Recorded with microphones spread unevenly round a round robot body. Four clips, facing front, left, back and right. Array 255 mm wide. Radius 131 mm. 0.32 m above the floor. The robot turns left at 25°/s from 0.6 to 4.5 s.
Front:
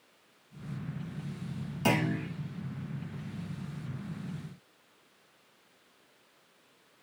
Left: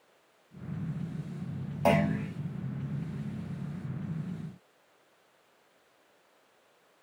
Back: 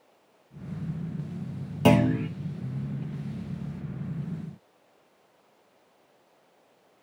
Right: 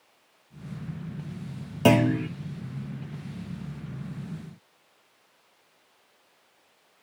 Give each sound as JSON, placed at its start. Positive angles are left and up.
{"t": 1.9, "sound": "a clunk", "azimuth_deg": -130, "distance_m": 2.0}